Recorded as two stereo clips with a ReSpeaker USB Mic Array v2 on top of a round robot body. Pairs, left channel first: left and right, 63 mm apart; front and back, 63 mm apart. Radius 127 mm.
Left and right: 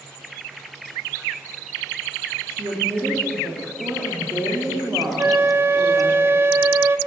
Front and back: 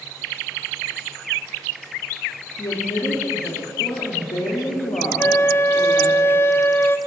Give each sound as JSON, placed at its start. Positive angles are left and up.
{"t": 2.6, "sound": "a woman speaking", "azimuth_deg": -25, "distance_m": 2.0}
{"t": 5.2, "sound": "a flute", "azimuth_deg": -45, "distance_m": 0.6}